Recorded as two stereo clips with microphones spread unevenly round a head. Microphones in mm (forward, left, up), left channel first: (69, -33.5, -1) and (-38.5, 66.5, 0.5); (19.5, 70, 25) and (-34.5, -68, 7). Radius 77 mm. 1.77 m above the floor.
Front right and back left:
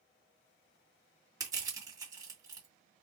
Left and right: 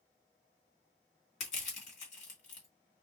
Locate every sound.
1.4 s crushing: 75° left, 2.5 m